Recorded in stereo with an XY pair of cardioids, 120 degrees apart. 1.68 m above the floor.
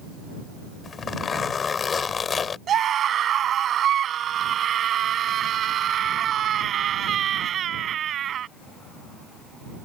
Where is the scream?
50° right.